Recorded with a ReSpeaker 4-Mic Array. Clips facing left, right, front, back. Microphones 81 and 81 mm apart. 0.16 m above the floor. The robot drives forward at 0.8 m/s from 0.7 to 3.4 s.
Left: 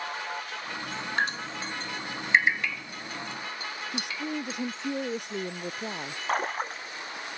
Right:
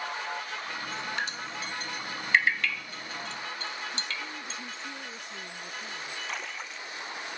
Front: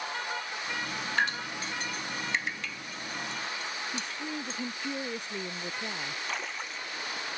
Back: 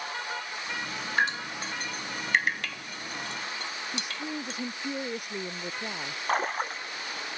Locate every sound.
1.2 s dripping: 115° left; by 4.6 s 170° left
3.9 s a woman speaking: 105° left
6.3 s a splash: 135° left